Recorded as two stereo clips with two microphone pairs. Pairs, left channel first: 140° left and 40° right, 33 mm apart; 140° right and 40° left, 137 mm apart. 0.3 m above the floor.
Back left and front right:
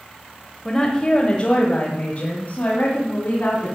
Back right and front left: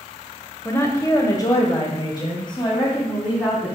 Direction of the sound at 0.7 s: 175° right.